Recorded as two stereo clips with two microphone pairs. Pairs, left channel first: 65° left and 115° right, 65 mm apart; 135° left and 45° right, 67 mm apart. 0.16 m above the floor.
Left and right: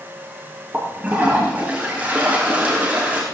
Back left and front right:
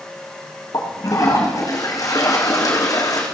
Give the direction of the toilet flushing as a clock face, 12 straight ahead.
6 o'clock.